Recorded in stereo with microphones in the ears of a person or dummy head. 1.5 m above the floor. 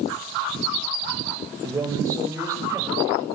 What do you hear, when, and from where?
1.6 s a man speaking: 15° right (ahead or behind), 4.5 m